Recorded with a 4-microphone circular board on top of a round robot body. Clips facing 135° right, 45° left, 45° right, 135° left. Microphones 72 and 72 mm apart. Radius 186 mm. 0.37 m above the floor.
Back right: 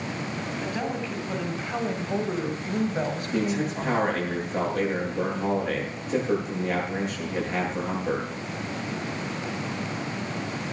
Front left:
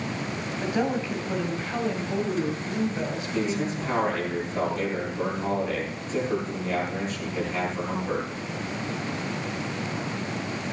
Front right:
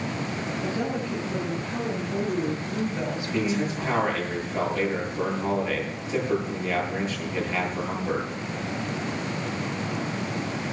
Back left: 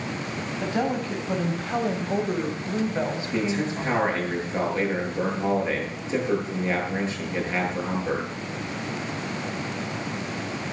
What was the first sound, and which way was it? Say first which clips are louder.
A woman speaking: front left 6 dB, back left 4 dB; 120° left.